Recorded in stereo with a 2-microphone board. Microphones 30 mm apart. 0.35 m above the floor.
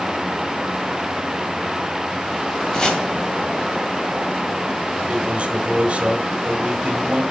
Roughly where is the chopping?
Left.